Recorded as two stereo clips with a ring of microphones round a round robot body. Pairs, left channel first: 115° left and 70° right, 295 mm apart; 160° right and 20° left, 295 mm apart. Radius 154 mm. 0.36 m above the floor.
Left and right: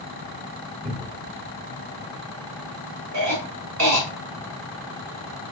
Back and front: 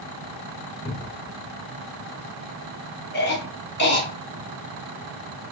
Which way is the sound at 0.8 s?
105° right.